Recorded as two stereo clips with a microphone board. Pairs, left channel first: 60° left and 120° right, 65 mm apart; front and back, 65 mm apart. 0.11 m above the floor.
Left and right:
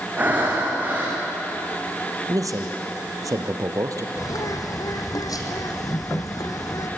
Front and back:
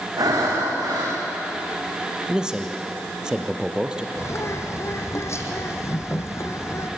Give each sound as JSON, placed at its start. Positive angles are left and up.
{"t": 0.2, "sound": "breathing", "azimuth_deg": 175, "distance_m": 6.5}
{"t": 2.3, "sound": "a man speaking", "azimuth_deg": -105, "distance_m": 2.5}
{"t": 4.2, "sound": "a bird", "azimuth_deg": 40, "distance_m": 2.5}